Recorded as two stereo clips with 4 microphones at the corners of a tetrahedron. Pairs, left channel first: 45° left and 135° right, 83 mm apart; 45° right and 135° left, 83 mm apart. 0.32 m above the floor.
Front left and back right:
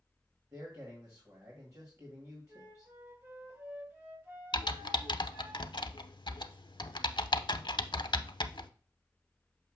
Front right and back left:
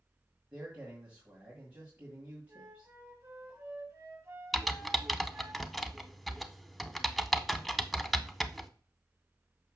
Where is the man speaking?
165° right, 2 m.